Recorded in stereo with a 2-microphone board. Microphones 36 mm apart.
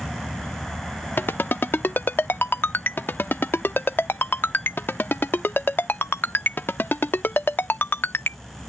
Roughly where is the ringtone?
Left.